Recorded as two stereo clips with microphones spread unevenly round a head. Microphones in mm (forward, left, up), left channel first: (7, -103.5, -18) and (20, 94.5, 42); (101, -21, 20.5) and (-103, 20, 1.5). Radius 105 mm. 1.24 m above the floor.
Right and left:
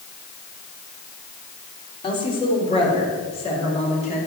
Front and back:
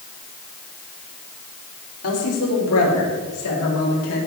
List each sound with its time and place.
2.0 s a woman speaking: 25° right, 3.5 m; by 4.2 s 35° right, 6 m